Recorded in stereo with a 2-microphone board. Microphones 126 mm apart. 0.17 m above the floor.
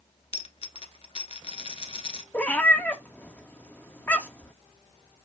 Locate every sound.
0.3 s a dropped coin: 60° left (ahead or behind), 0.7 m
2.3 s a cat meowing: 15° left (ahead or behind), 0.8 m